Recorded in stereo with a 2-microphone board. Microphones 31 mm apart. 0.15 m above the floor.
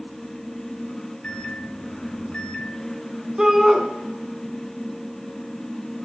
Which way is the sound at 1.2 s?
30° left (ahead or behind).